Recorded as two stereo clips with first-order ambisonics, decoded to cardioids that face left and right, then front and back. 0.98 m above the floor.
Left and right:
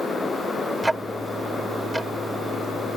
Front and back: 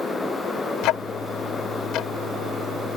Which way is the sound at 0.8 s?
10° right.